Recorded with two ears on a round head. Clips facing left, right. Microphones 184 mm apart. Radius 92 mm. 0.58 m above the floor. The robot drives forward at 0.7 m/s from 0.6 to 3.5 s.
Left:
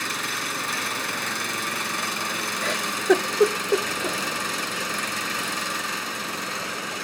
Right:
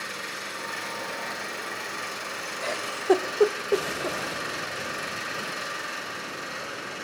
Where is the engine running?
80° left, 4 m; by 7.0 s 70° left (ahead or behind), 4.5 m.